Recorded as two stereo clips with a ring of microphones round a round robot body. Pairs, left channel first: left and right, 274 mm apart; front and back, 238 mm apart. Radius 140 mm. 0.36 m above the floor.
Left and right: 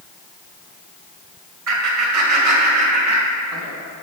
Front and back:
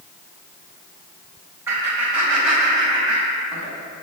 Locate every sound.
1.7 s laughter: 100° right, 1.8 m; by 3.7 s 85° right, 3 m